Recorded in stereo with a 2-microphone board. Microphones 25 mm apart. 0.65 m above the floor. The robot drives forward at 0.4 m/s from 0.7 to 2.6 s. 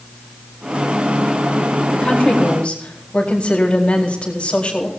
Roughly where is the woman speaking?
Left.